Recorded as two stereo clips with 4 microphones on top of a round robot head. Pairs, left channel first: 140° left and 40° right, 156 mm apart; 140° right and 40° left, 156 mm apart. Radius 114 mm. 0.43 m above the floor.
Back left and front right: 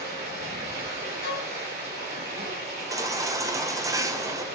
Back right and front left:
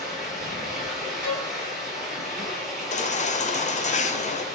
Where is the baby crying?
105° right, 1.6 m.